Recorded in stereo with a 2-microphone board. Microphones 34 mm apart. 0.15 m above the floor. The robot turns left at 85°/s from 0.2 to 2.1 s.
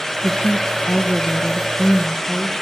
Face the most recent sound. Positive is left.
turn(degrees=5)